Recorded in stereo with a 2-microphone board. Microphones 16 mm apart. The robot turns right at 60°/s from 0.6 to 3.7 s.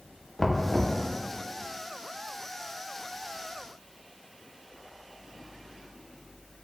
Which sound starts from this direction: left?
Knocking, at 0.4 s.